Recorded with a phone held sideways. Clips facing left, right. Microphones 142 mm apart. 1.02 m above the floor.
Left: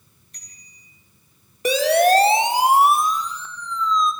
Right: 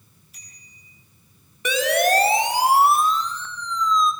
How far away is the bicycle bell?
About 6 m.